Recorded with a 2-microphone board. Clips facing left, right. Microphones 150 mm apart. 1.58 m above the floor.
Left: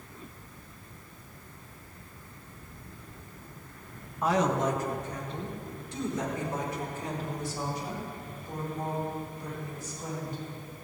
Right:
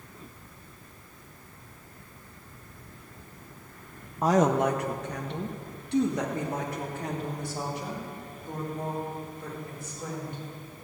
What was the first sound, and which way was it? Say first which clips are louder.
A woman speaking: right 4 dB; 30° right (ahead or behind).